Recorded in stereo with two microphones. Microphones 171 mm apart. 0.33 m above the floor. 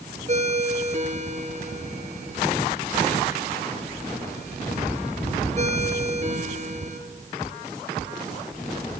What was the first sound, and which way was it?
A ringtone, 45° right (ahead or behind).